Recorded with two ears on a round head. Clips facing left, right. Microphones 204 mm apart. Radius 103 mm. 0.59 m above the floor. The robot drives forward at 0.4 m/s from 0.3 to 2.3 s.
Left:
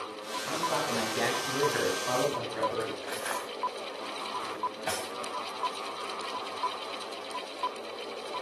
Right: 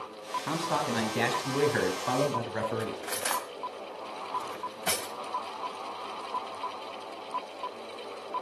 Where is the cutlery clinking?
50° right (ahead or behind), 2.5 m.